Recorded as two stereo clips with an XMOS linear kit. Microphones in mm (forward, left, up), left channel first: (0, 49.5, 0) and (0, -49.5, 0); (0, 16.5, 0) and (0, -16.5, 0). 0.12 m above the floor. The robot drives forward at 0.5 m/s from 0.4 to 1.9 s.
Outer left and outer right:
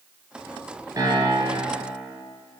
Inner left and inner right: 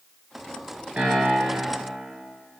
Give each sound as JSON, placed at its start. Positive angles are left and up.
{"t": 1.0, "sound": "a piano", "side_deg": -40, "distance_m": 1.9}